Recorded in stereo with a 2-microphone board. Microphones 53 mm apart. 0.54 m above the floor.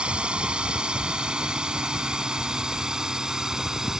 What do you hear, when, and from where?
0.0 s a drone: 20° right (ahead or behind); by 4.0 s 10° right (ahead or behind)